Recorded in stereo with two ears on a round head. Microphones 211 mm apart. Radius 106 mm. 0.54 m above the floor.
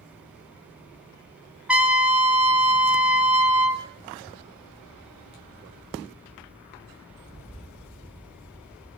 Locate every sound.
1.7 s a trumpet: 5° right (ahead or behind), 0.6 m